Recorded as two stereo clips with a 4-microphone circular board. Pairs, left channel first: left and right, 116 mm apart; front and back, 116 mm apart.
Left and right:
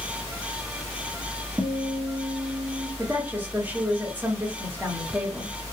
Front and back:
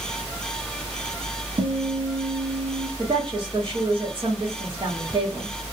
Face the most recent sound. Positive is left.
turn(degrees=-160)